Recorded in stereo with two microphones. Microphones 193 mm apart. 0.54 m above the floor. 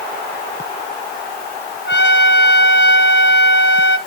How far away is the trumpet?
About 1.2 m.